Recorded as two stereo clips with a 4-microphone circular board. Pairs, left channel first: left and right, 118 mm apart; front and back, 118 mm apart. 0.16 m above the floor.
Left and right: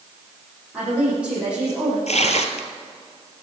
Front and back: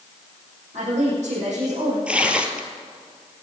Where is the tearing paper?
100° left, 1.6 m.